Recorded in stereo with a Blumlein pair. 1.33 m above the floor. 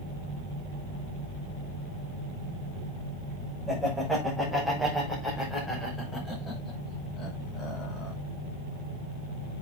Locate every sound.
3.7 s laughter: 5° right, 6.5 m; by 8.1 s 20° left, 6.5 m